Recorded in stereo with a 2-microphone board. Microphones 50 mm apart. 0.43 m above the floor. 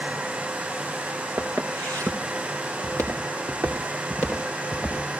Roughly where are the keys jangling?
No keys jangling in this recording.